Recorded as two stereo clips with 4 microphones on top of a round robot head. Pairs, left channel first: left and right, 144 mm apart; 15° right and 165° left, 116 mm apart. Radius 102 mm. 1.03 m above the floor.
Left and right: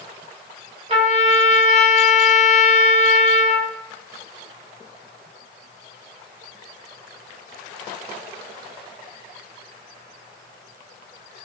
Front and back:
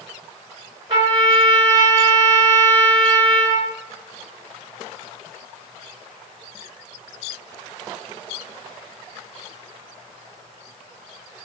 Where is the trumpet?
135° right, 3.5 m.